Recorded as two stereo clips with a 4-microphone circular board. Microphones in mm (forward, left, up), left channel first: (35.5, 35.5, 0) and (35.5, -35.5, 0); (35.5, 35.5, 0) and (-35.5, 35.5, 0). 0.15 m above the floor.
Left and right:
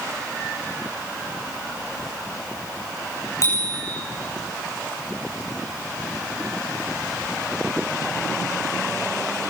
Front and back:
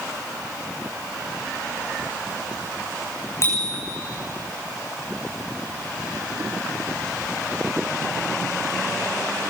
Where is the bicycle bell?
50° left, 9 m.